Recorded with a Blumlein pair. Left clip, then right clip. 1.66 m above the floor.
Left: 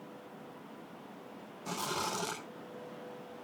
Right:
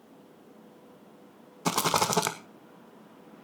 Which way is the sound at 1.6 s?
40° right.